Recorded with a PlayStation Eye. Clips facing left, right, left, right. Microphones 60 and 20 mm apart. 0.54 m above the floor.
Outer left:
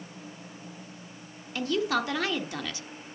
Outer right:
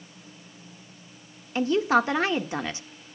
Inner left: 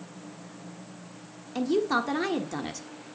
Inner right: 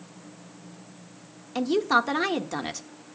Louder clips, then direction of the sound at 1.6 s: Outer right 6 dB, inner right 3 dB; 25° right (ahead or behind).